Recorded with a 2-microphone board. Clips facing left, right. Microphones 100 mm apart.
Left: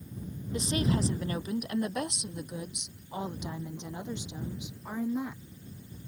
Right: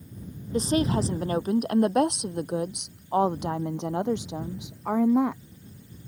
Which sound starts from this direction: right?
A woman speaking, at 0.5 s.